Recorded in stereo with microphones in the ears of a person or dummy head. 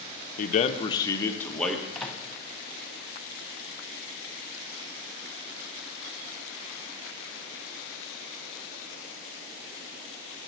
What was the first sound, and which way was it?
A man speaking, 50° left (ahead or behind).